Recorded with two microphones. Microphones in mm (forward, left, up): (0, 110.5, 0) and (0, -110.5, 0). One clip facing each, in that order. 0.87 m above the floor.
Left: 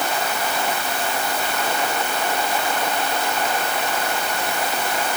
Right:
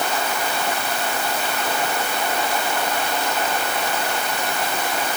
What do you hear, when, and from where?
Only background noise.